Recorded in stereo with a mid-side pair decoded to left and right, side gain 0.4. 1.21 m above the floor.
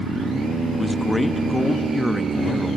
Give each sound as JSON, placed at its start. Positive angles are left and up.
{"t": 0.8, "sound": "a man speaking", "azimuth_deg": 10, "distance_m": 1.3}